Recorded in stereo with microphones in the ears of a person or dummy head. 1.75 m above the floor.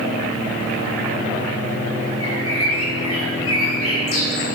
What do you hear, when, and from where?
2.2 s a bird: 80° left, 6.5 m